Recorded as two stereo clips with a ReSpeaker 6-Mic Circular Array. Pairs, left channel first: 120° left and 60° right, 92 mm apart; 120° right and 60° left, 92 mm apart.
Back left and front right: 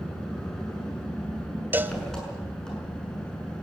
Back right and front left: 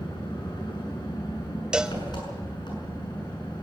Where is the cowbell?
15° right, 0.7 m.